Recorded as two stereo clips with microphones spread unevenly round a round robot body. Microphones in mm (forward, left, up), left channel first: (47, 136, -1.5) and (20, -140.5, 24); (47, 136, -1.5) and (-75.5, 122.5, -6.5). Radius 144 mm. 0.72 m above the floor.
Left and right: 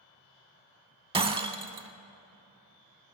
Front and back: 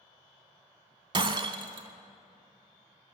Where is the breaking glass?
150° right, 0.7 m.